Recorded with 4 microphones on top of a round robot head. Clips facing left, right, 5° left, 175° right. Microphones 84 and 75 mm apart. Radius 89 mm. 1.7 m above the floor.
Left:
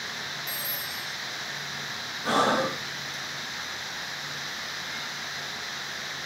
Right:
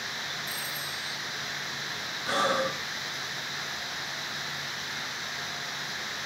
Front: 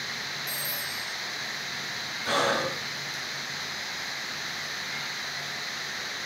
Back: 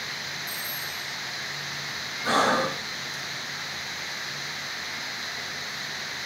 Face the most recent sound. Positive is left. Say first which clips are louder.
# left 3 dB, back 4 dB
turn(degrees=130)